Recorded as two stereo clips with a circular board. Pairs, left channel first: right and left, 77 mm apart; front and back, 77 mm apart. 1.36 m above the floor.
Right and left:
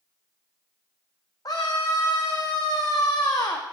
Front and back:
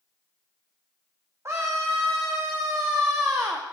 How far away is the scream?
About 0.6 m.